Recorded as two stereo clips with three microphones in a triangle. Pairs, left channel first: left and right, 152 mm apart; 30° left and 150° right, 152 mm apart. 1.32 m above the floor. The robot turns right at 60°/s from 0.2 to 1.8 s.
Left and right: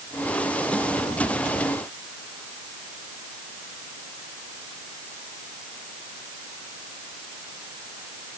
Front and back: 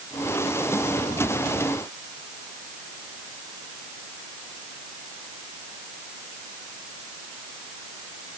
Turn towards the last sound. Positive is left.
No sound to turn to.